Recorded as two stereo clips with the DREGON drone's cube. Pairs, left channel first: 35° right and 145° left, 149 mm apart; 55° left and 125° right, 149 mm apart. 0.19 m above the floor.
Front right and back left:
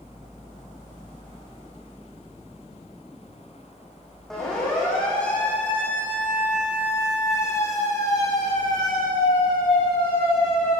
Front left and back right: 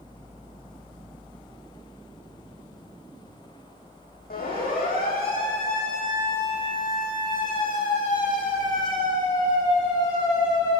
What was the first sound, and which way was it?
A siren, 50° left.